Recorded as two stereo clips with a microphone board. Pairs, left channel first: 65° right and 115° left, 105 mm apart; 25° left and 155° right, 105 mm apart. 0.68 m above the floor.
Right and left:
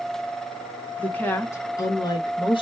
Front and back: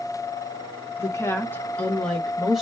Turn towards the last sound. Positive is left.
turn(degrees=-70)